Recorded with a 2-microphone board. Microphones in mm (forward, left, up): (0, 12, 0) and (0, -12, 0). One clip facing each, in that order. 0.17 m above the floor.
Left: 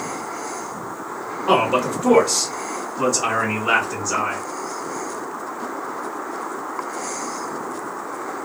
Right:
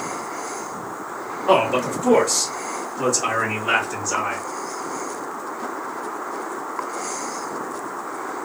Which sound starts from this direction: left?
A man speaking, at 1.5 s.